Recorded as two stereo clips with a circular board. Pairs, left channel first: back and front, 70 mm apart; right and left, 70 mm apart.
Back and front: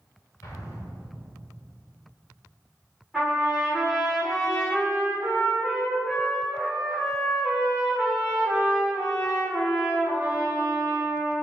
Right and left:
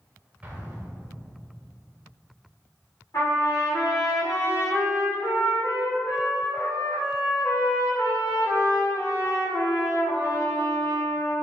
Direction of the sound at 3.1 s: 80° right.